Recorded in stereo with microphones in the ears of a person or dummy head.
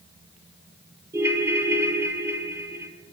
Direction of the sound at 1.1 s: 15° right (ahead or behind).